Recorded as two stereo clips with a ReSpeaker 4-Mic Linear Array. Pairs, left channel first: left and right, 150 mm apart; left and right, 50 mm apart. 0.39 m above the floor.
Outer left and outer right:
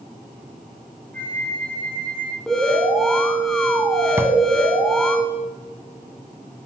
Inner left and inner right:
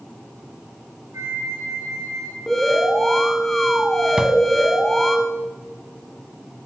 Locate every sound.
1.1 s a flute: 75° right (ahead or behind), 6.5 m
2.5 s an alarm: 5° left (ahead or behind), 2.5 m
4.2 s a drawer: 15° right (ahead or behind), 1.2 m